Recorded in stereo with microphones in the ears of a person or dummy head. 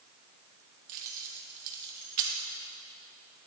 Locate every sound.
0.9 s keys jangling: 50° right (ahead or behind), 1.0 m